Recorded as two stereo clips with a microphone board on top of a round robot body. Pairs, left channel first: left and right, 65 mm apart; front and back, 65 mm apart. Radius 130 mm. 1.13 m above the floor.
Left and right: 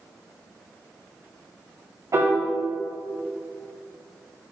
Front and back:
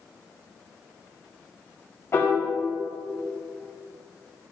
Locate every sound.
2.1 s a piano: 50° right, 5 m